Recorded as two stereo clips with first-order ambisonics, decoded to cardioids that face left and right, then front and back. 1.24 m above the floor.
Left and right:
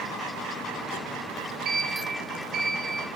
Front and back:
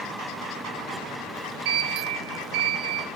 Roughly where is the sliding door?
Behind right.